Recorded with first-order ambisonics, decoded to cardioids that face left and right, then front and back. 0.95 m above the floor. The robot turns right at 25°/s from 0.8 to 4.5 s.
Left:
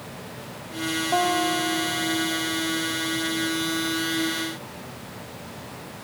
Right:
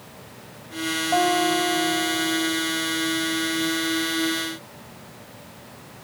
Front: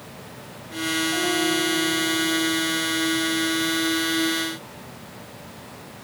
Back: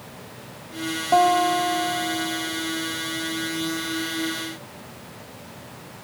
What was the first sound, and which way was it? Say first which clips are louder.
A guitar: right 2 dB, back 10 dB; straight behind.